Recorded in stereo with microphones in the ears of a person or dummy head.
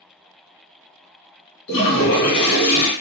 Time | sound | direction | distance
1.7 | a toilet flushing | 55° left (ahead or behind) | 1.4 m